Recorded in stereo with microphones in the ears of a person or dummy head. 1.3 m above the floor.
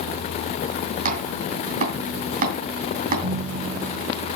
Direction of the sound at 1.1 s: 40° right (ahead or behind).